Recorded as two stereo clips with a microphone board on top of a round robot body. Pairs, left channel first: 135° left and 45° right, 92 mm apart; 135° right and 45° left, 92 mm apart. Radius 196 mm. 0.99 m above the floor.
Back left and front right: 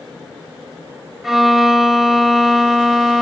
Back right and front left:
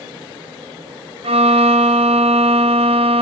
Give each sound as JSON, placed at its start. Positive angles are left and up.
{"t": 1.2, "sound": "a violin", "azimuth_deg": 40, "distance_m": 1.2}